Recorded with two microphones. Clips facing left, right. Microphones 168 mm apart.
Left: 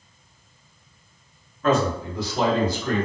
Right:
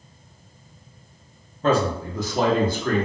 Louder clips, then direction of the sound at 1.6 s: Even; 30° right (ahead or behind).